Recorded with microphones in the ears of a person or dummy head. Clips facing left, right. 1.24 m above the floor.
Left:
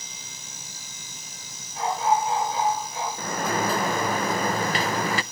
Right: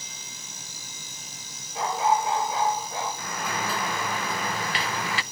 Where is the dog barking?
65° right (ahead or behind), 7 m; by 3.1 s 60° right (ahead or behind), 6 m.